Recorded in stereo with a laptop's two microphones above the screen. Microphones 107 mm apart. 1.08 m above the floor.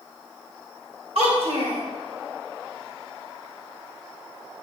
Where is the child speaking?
70° right (ahead or behind), 2.5 m.